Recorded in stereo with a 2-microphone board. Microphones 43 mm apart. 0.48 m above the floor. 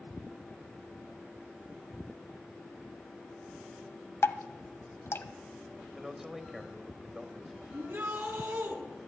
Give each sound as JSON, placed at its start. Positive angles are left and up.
{"t": 4.2, "sound": "dripping", "side_deg": 75, "distance_m": 1.1}
{"t": 6.0, "sound": "a man speaking", "side_deg": -5, "distance_m": 3.0}
{"t": 7.7, "sound": "a shout", "side_deg": -60, "distance_m": 5.5}